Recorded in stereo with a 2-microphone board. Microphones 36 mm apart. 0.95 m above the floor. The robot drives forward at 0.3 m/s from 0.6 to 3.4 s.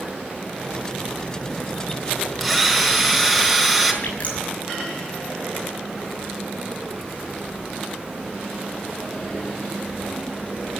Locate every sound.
2.4 s a drill: centre (ahead or behind), 4.5 m
4.0 s dripping: 35° left (ahead or behind), 6.5 m